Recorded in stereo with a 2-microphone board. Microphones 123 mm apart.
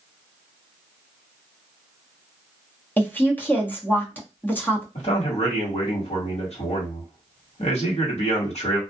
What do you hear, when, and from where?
3.0 s a woman speaking: 15° left (ahead or behind), 0.8 m
5.0 s a man speaking: 60° left (ahead or behind), 1.7 m